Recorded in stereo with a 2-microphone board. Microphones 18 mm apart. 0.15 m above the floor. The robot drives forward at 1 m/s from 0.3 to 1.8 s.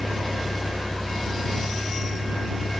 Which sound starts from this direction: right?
A vehicle, at 0.0 s.